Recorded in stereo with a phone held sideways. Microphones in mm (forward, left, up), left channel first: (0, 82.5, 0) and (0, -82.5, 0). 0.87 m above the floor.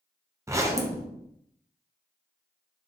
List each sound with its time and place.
0.5 s a zipper: 20° right (ahead or behind), 0.6 m